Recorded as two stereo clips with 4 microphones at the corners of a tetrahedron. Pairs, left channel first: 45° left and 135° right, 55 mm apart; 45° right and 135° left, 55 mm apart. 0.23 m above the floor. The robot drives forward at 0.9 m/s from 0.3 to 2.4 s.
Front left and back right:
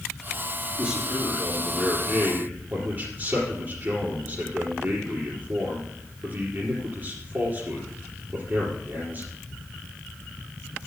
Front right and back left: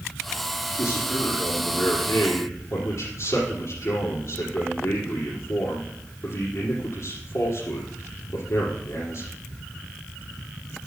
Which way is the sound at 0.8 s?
65° right.